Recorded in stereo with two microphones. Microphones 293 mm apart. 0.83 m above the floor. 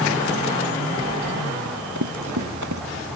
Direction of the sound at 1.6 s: 80° right.